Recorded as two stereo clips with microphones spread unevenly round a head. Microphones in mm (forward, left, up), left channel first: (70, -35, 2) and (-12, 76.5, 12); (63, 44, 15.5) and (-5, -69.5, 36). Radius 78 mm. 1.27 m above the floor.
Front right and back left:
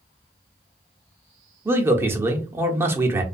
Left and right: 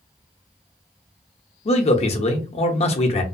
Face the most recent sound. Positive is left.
turn(degrees=50)